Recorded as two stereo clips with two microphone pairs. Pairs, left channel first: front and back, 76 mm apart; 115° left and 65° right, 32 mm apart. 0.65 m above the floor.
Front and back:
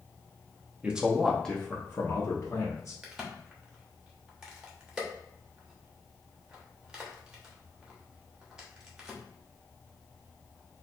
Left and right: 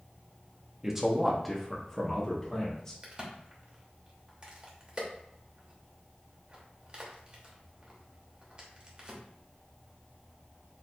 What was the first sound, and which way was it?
A man speaking, 130° right.